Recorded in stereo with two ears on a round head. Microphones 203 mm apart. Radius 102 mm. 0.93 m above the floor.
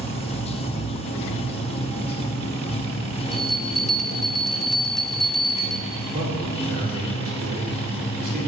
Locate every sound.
0.0 s running water: 25° left (ahead or behind), 0.9 m
3.3 s a bell: centre (ahead or behind), 0.8 m
6.1 s a man speaking: 40° right (ahead or behind), 3.5 m